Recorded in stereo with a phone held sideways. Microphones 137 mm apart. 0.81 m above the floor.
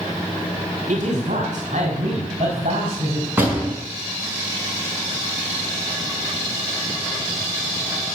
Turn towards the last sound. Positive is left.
turn(degrees=-15)  # may be behind; listen again after turning